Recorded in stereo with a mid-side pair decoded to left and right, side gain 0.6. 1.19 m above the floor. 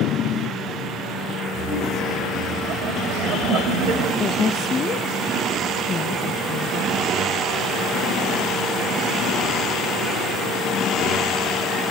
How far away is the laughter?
About 8 m.